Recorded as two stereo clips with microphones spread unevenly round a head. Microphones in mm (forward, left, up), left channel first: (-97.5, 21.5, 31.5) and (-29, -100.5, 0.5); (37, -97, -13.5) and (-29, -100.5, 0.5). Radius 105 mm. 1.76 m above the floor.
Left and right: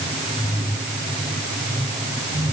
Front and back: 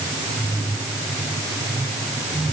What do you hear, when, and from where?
Only background noise.